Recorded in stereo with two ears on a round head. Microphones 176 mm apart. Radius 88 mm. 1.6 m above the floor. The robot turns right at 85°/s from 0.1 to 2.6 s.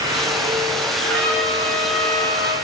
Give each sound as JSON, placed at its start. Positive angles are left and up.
{"t": 1.0, "sound": "a trumpet", "azimuth_deg": -75, "distance_m": 9.5}